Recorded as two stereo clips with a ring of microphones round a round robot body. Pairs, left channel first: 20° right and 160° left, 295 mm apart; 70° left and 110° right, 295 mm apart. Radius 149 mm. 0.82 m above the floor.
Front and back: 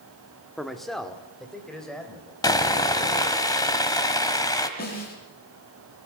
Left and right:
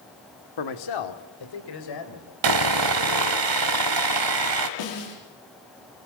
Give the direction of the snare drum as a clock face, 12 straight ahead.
11 o'clock.